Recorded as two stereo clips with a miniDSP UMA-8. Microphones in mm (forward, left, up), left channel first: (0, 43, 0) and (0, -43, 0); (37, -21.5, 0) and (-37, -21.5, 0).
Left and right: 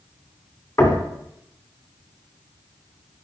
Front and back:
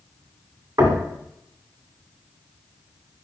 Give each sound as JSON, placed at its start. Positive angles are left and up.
{"t": 0.8, "sound": "knocking", "azimuth_deg": 140, "distance_m": 2.5}